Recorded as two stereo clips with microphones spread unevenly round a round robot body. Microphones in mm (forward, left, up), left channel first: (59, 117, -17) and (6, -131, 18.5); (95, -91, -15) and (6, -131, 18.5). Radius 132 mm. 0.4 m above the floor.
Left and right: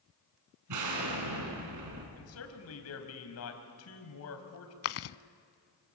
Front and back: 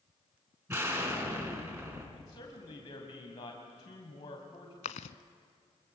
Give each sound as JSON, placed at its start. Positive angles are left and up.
{"t": 0.7, "sound": "an explosion", "azimuth_deg": -90, "distance_m": 4.0}
{"t": 2.2, "sound": "a man speaking", "azimuth_deg": 70, "distance_m": 3.0}
{"t": 4.8, "sound": "chewing", "azimuth_deg": 40, "distance_m": 0.5}